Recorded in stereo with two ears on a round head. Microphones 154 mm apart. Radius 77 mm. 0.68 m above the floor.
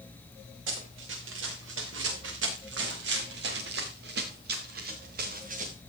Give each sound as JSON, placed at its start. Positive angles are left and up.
{"t": 0.7, "sound": "running footsteps", "side_deg": -85, "distance_m": 6.0}